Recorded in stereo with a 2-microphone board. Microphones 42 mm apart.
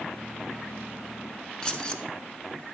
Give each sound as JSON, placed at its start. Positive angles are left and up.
{"t": 1.6, "sound": "keys jangling", "side_deg": 20, "distance_m": 0.9}